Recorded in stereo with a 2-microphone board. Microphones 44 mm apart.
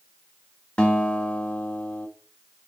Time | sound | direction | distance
0.8 | a guitar | 25° left (ahead or behind) | 1.5 m